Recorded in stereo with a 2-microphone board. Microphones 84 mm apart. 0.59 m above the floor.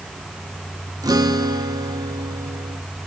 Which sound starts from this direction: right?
A guitar, at 1.0 s.